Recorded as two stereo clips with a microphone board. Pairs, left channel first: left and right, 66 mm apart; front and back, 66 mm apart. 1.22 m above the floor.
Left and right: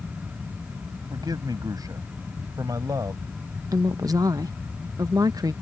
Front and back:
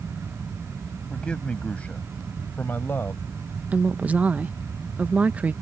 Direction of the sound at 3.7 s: 110° right.